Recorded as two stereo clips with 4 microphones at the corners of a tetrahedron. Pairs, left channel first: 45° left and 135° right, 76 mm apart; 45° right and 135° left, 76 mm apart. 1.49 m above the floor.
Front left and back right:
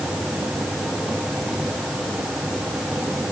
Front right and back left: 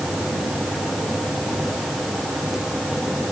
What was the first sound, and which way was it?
Only background noise.